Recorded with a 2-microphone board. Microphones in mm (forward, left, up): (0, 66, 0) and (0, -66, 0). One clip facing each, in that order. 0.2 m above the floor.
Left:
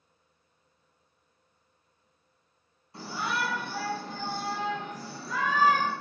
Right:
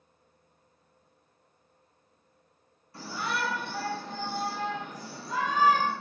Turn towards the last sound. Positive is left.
turn(degrees=-30)  # may be behind; listen again after turning